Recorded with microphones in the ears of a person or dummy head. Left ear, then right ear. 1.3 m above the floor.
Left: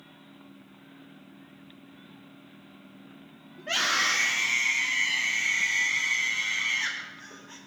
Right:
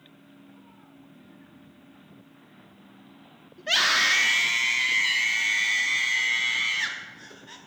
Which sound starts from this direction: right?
A scream, at 3.6 s.